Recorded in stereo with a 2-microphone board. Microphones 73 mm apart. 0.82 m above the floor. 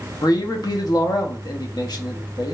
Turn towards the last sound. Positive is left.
turn(degrees=65)  # may be behind; listen again after turning